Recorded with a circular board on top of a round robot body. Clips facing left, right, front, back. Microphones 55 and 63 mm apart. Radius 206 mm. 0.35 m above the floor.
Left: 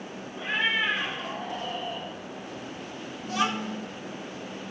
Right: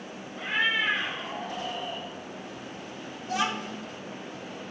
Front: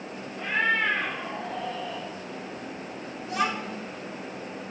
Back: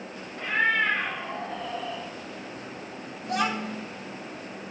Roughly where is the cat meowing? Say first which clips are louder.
Even, back 1 dB; behind right.